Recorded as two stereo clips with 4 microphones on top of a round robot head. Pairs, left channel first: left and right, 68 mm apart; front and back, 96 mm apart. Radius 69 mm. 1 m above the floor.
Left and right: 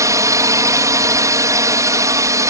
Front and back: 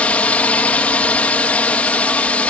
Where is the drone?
70° right.